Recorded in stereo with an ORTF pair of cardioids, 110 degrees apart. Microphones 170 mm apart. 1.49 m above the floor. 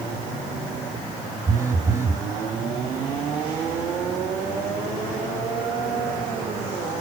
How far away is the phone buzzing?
About 1.7 m.